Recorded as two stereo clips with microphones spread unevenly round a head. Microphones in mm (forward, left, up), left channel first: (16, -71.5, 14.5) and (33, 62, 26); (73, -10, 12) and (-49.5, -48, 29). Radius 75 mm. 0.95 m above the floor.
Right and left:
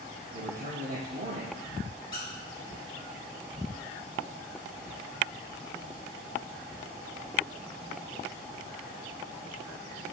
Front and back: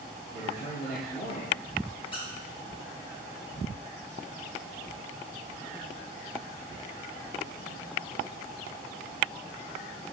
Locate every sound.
0.3 s a man speaking: 60° left, 2 m
2.1 s a squeak: 35° right, 2.5 m